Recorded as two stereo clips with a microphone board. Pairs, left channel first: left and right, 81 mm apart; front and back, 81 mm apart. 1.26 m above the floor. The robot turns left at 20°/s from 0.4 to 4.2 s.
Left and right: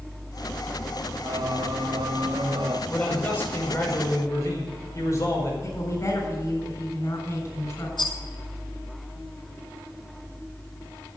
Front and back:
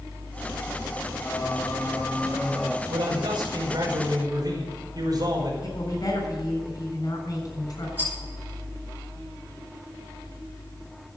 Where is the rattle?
110° left, 9 m.